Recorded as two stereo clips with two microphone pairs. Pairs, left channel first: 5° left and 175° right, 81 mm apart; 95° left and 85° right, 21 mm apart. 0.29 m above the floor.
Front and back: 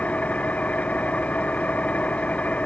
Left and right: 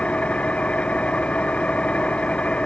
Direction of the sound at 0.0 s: 80° left.